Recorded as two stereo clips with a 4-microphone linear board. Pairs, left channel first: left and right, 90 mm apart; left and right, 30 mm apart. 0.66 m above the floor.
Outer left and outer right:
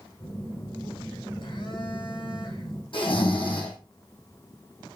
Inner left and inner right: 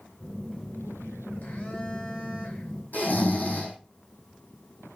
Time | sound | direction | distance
0.2 | a phone buzzing | 65° left (ahead or behind) | 2.5 m
2.9 | snoring | 70° left (ahead or behind) | 4.5 m